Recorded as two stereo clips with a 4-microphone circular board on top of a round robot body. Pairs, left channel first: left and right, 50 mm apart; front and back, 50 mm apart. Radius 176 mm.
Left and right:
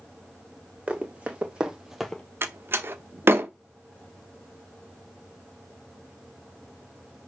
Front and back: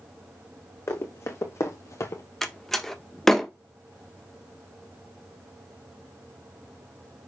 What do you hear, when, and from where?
0.9 s running footsteps: 25° right, 2 m; by 2.2 s 25° left, 0.6 m
2.4 s a door slam: 80° right, 1.3 m